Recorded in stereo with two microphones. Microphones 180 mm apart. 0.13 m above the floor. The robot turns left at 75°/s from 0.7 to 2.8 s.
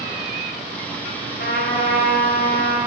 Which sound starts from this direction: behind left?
A trumpet, at 1.4 s.